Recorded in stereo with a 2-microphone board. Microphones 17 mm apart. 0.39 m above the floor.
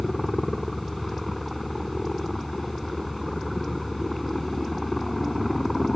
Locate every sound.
0.0 s a helicopter: centre (ahead or behind)